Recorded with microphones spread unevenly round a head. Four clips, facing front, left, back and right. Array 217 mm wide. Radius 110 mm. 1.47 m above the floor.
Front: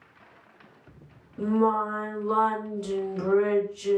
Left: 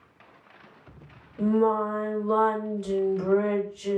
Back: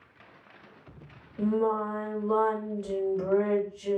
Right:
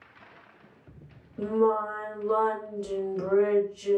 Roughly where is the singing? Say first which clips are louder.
Left 2 dB, front 3 dB; ahead right.